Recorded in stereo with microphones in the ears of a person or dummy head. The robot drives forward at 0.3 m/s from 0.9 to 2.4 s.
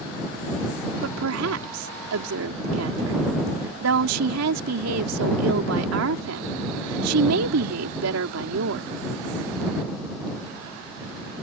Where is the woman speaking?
85° right; by 8.9 s 75° right (ahead or behind).